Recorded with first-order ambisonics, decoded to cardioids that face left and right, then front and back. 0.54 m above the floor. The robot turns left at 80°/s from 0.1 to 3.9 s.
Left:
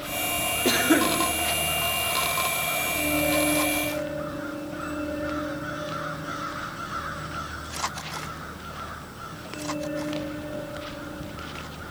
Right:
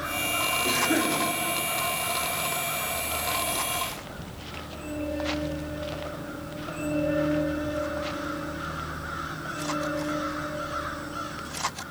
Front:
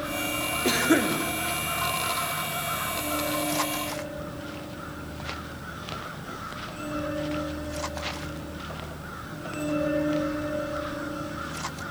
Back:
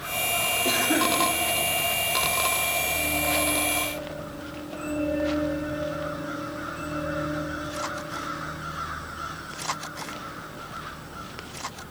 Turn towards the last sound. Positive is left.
turn(degrees=160)